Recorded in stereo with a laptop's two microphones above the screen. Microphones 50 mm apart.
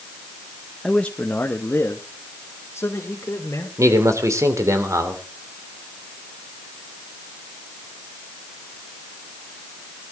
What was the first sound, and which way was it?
A man speaking, 10° left (ahead or behind).